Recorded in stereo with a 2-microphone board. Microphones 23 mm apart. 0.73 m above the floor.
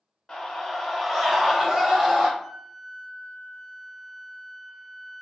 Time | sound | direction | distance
0.3 | a scream | 20° left (ahead or behind) | 0.9 m
2.4 | a flute | 5° left (ahead or behind) | 0.6 m